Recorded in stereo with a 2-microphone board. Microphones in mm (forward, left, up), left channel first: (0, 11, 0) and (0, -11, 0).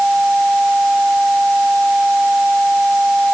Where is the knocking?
I don't hear knocking.